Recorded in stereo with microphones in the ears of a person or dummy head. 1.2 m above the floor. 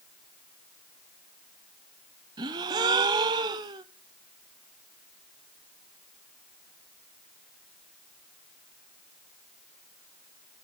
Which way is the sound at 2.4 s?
20° right (ahead or behind).